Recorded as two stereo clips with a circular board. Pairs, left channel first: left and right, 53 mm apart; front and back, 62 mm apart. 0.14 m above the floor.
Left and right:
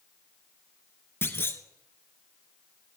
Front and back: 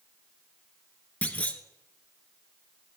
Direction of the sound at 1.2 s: 55° left.